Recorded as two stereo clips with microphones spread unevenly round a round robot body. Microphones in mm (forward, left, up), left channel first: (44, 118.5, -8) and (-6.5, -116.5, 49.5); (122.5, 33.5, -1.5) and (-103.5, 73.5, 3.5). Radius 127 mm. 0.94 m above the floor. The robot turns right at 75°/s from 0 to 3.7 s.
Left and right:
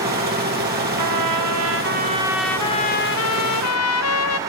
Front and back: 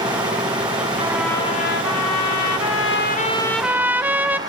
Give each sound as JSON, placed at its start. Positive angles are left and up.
{"t": 1.0, "sound": "a trumpet", "azimuth_deg": -115, "distance_m": 0.8}